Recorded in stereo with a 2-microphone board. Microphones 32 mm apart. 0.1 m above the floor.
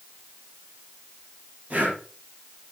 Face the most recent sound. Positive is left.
turn(degrees=-45)  # may be behind; listen again after turning